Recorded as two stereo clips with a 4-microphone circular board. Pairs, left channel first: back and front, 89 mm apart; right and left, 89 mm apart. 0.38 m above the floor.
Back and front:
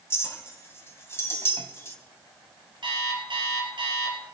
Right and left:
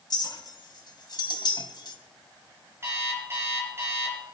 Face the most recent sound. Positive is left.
turn(degrees=30)